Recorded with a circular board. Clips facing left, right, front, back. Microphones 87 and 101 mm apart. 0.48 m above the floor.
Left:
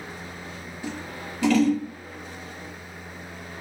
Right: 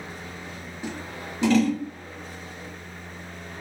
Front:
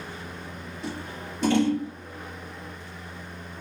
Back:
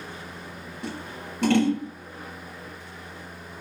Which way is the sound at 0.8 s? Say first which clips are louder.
Even, even; 160° right.